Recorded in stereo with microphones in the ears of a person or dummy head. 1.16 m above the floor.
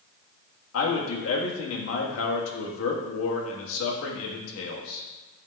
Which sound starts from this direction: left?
A man speaking, at 0.7 s.